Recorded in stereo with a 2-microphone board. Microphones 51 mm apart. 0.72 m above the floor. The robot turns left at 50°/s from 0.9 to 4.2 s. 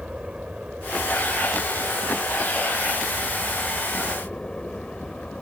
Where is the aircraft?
20° right (ahead or behind); by 5.4 s 15° left (ahead or behind).